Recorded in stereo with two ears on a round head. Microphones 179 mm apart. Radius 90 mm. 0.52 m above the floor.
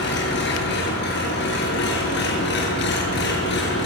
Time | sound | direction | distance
0.0 | an engine running | 55° left (ahead or behind) | 7 m